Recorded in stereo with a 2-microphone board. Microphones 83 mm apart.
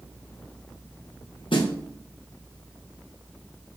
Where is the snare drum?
80° left, 0.9 m.